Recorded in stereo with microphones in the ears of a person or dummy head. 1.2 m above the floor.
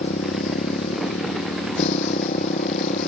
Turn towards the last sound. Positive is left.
turn(degrees=40)  # may be behind; listen again after turning